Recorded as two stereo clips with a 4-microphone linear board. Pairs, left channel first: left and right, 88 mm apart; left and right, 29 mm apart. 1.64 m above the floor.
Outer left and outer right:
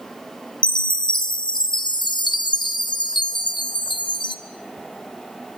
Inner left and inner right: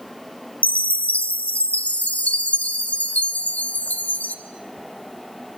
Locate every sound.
0.6 s a chime: 65° left (ahead or behind), 1.3 m